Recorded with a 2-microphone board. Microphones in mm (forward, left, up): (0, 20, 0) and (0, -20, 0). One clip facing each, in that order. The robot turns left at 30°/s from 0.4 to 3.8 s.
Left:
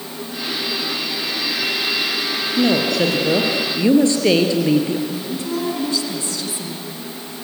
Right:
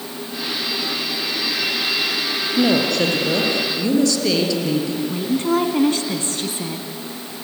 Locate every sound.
2.6 s a woman speaking: 175° right, 3.5 m; by 5.0 s 145° left, 3.5 m
5.1 s a woman speaking: 45° right (ahead or behind), 2.5 m